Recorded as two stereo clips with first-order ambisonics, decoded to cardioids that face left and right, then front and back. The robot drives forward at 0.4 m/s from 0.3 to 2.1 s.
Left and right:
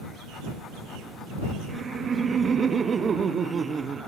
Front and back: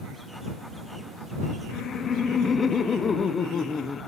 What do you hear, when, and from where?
1.7 s laughter: 25° right, 0.6 m; by 4.1 s 40° right, 0.5 m